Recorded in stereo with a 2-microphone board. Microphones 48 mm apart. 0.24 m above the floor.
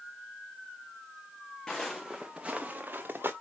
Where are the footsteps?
15° left (ahead or behind), 1.1 m; by 3.3 s 45° right (ahead or behind), 1.4 m.